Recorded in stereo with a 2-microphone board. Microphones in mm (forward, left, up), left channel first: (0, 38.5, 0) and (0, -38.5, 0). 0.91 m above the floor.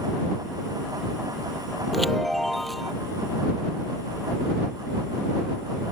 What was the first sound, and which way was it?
A chime, centre (ahead or behind).